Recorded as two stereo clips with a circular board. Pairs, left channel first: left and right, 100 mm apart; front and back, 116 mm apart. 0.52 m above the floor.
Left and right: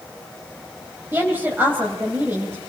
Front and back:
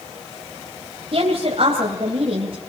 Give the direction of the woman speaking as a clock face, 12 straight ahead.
5 o'clock.